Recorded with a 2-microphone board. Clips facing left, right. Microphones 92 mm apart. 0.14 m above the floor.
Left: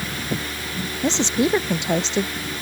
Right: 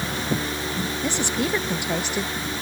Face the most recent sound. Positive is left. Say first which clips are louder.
# left 7 dB
turn(degrees=20)  # may be behind; listen again after turning